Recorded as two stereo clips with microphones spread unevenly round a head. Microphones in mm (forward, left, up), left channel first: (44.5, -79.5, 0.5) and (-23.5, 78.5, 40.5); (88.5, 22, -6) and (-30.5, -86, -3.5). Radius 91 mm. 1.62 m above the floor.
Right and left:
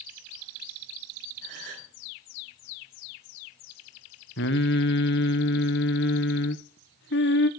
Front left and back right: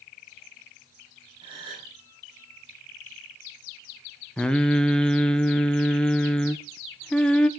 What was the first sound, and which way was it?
A gasp, 155° left.